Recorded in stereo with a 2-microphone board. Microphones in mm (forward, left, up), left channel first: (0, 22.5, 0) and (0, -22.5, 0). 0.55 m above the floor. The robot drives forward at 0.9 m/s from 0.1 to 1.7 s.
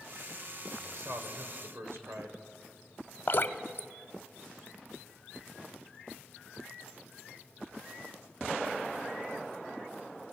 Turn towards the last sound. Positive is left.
turn(degrees=55)  # may be behind; listen again after turning